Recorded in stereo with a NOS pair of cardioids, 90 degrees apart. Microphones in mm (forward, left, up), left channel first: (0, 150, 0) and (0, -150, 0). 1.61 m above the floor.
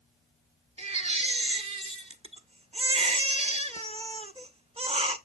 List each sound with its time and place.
0.8 s a baby crying: 20° right, 1.2 m